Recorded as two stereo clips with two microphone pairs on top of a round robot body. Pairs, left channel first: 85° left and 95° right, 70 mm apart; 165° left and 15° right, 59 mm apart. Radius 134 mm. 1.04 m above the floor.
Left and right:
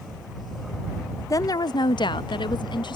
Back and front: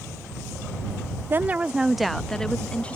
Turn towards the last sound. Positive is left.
turn(degrees=95)